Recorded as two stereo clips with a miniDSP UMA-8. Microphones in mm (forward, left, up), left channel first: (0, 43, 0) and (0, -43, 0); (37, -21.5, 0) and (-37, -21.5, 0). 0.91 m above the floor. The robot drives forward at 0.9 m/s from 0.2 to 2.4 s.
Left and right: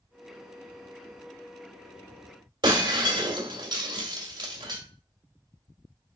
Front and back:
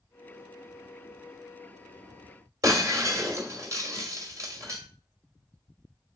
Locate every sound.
2.6 s breaking glass: 130° right, 1.9 m